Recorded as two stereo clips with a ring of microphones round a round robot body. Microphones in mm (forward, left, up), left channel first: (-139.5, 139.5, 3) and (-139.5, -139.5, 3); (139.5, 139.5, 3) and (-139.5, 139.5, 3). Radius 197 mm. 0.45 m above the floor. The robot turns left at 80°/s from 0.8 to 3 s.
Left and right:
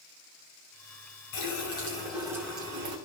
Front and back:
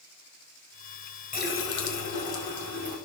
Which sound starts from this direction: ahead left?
A running tap, at 1.3 s.